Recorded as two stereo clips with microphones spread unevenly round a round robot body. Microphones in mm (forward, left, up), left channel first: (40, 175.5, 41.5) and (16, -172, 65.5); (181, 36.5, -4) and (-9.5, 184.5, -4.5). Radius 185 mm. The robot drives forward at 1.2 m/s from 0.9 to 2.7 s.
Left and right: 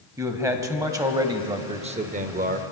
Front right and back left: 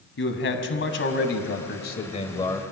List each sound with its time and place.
0.2 s a man speaking: 10° right, 2.5 m; by 2.6 s 100° right, 1.3 m